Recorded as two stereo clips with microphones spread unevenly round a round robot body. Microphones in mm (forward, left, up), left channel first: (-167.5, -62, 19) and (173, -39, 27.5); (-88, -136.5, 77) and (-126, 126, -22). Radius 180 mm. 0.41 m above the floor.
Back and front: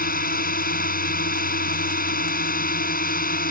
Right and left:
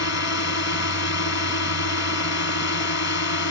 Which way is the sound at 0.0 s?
110° right.